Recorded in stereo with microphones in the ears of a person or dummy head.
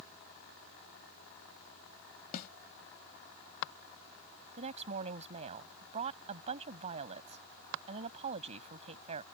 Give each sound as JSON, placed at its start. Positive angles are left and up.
{"t": 2.3, "sound": "a snare drum", "side_deg": 55}
{"t": 4.6, "sound": "a woman speaking", "side_deg": -40}